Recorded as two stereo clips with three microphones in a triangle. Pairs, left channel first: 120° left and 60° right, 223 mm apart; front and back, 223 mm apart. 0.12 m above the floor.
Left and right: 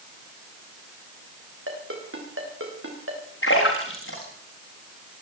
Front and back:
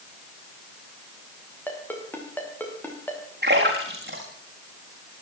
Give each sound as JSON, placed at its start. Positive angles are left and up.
{"t": 1.7, "sound": "a ringtone", "azimuth_deg": -80, "distance_m": 6.5}
{"t": 3.4, "sound": "a splash", "azimuth_deg": 140, "distance_m": 7.0}